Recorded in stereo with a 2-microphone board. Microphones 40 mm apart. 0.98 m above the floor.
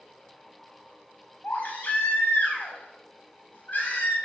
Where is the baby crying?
50° left (ahead or behind), 3.5 m.